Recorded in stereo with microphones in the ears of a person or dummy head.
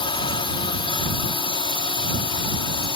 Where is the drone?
25° left (ahead or behind).